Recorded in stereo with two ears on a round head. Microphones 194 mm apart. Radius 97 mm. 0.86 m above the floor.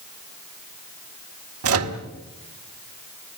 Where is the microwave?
75° right (ahead or behind), 2.0 m.